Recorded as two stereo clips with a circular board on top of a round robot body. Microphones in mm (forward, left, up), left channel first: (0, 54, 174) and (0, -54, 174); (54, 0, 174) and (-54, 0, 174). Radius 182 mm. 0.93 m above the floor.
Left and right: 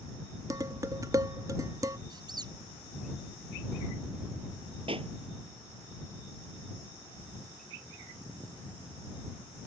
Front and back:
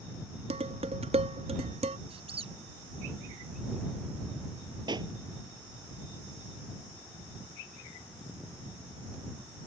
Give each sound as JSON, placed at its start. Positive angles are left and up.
{"t": 0.5, "sound": "dishes clattering", "azimuth_deg": -150}
{"t": 2.1, "sound": "a squeak", "azimuth_deg": -145}
{"t": 4.9, "sound": "a pop", "azimuth_deg": -130}